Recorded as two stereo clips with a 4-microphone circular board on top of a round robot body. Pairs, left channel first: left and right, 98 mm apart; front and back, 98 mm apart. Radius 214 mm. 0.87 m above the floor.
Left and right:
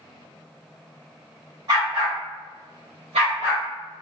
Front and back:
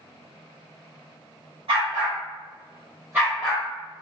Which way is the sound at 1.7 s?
145° right.